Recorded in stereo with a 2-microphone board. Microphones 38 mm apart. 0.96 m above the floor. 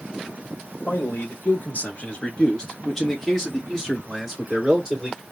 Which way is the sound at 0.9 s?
65° left (ahead or behind).